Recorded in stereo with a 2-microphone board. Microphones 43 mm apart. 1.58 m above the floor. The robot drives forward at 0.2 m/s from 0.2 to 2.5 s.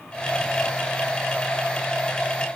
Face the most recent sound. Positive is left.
No sound to turn to.